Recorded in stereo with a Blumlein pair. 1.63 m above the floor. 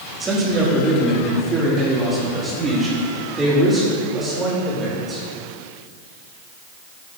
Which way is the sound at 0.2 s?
15° right.